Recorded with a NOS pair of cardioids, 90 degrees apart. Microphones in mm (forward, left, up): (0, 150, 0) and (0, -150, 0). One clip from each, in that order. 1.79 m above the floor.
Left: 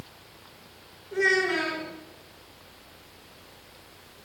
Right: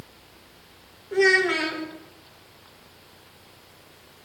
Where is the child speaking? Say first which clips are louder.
Right 4 dB; 55° right, 6 m.